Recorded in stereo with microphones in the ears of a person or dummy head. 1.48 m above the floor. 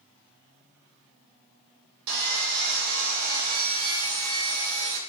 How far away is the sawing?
About 0.7 m.